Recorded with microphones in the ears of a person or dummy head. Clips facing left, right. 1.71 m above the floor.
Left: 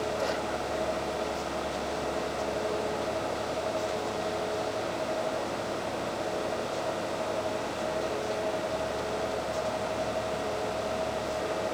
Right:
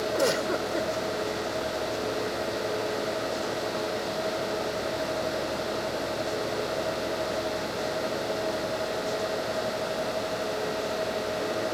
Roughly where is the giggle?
Right.